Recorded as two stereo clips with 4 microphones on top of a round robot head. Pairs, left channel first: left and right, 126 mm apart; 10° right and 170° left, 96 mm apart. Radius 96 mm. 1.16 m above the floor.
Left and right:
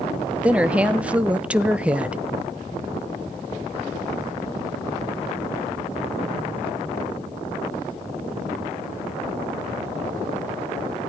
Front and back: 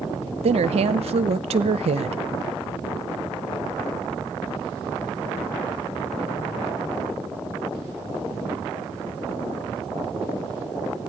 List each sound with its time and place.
0.4 s a woman speaking: 170° right, 0.6 m